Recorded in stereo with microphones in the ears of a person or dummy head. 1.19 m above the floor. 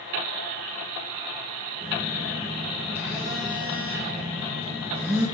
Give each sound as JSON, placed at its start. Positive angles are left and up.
{"t": 1.8, "sound": "a phone buzzing", "side_deg": -10, "distance_m": 1.6}